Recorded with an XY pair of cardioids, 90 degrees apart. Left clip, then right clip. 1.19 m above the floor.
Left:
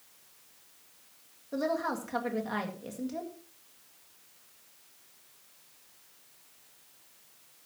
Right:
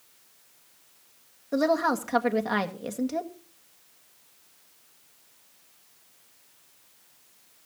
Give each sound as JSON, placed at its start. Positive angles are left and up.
{"t": 1.5, "sound": "a woman speaking", "azimuth_deg": -60, "distance_m": 1.8}